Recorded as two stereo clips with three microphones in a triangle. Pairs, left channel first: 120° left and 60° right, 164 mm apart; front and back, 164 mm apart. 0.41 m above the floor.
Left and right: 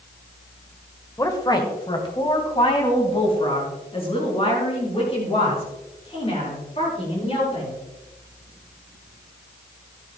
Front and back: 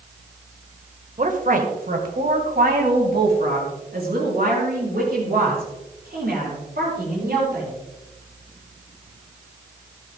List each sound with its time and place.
1.2 s a woman speaking: straight behind, 1.6 m; by 7.7 s 170° left, 9.5 m